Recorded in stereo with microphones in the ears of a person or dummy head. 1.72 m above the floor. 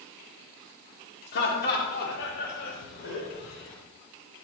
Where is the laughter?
60° left (ahead or behind), 3.5 m; by 3.8 s 70° left (ahead or behind), 6 m.